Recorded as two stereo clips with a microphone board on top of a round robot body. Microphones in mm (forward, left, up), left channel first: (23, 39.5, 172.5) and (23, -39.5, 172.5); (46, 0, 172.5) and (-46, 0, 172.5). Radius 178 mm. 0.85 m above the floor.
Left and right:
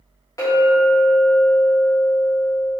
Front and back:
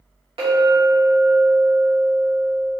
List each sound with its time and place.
0.4 s a clink: 145° left, 1.2 m